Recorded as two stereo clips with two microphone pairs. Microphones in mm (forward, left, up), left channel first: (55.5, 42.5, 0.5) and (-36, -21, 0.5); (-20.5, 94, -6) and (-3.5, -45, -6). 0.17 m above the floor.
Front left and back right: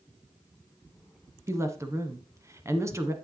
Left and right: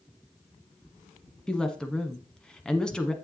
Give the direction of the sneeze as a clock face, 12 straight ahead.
No sneeze in this recording.